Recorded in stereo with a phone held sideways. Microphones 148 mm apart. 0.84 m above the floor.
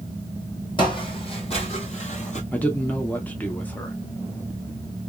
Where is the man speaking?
10° left (ahead or behind), 0.7 m.